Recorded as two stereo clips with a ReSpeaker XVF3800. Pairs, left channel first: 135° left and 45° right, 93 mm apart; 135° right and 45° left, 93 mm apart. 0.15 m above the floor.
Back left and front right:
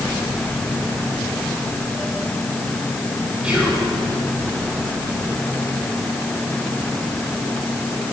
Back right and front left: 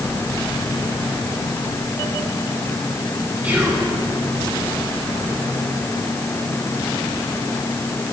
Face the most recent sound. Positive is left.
turn(degrees=10)